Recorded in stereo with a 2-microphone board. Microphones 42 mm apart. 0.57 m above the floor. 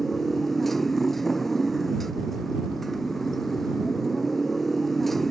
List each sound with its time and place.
0.0 s a motorcycle: 5° left (ahead or behind)